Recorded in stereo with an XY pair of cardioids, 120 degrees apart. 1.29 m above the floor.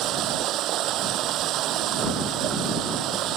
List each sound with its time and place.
0.0 s running water: 70° right